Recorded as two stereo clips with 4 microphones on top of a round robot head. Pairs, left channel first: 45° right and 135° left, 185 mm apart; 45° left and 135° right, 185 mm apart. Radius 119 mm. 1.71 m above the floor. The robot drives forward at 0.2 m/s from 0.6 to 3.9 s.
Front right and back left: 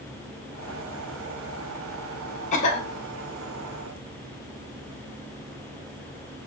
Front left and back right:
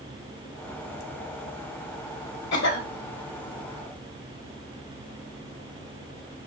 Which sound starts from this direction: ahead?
A cough, at 2.5 s.